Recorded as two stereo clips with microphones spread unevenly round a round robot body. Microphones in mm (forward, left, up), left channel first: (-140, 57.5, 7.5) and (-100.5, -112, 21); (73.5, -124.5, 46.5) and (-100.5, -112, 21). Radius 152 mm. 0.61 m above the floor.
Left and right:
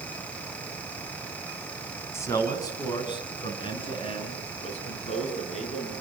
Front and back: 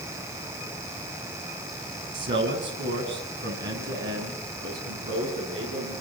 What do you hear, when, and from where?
2.1 s a man speaking: 175° left, 6.5 m; by 5.9 s 150° left, 10.5 m